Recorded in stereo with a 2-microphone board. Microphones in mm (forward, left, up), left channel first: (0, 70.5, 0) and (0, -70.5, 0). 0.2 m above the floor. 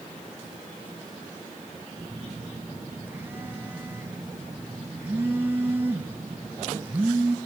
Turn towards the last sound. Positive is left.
turn(degrees=-15)  # may be behind; listen again after turning